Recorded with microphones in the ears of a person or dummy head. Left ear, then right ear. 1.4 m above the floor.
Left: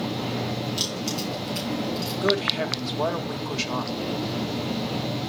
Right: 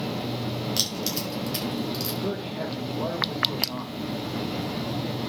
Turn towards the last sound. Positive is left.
turn(degrees=75)  # may be behind; listen again after turning